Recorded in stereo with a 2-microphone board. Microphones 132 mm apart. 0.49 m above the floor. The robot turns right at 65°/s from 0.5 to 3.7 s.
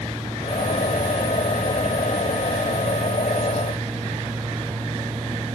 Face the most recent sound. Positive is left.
No sound to turn to.